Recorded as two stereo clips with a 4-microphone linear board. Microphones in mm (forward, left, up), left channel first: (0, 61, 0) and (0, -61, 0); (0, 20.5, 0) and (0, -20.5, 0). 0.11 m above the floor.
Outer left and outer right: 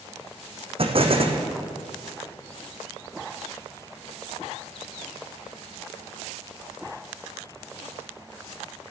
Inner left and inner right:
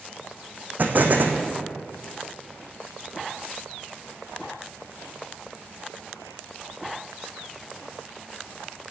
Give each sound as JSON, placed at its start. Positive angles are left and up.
{"t": 0.8, "sound": "an explosion", "side_deg": -50, "distance_m": 1.4}